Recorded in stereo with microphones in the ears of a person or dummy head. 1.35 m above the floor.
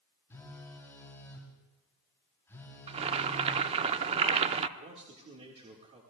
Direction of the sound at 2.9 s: 35° right (ahead or behind).